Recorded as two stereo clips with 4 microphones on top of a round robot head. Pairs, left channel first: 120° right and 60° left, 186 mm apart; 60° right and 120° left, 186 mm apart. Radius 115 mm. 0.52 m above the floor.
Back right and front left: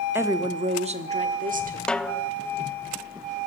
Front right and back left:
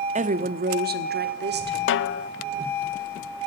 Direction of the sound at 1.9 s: 35° right.